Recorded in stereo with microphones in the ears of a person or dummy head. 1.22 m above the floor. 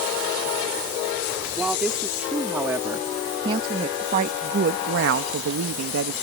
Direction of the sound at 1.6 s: 5° right (ahead or behind).